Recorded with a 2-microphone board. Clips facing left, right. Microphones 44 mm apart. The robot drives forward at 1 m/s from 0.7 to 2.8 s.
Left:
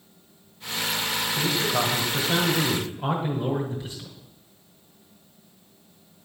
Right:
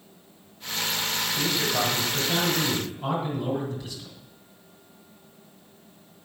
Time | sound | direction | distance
1.4 | a man speaking | 20° left (ahead or behind) | 3 m